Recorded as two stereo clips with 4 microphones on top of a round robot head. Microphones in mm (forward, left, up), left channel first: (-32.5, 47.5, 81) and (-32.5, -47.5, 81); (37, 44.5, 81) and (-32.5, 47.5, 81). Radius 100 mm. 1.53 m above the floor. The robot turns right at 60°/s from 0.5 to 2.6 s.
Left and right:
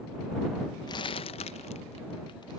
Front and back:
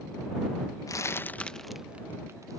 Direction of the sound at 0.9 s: 35° left.